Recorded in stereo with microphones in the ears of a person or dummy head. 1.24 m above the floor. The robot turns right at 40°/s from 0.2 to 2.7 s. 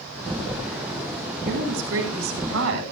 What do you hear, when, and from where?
1.4 s a woman speaking: 130° right, 6 m; by 2.8 s 80° right, 6 m